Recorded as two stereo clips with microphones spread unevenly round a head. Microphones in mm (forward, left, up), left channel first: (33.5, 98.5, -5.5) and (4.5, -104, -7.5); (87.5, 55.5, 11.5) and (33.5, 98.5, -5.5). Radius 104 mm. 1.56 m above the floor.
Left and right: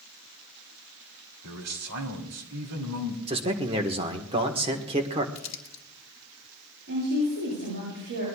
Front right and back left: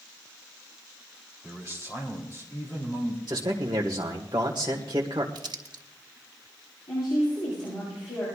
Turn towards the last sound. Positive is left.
turn(degrees=-65)